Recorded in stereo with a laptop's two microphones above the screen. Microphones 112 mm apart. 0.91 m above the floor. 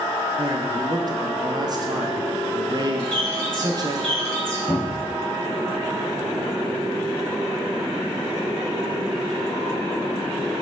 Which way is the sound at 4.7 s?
Centre (ahead or behind).